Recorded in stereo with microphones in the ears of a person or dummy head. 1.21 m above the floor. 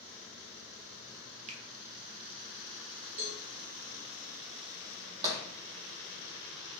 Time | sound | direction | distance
1.5 | a finger snap | 40° right (ahead or behind) | 0.6 m
3.2 | a cowbell | 45° right (ahead or behind) | 1.0 m
5.2 | tapping | 25° right (ahead or behind) | 0.9 m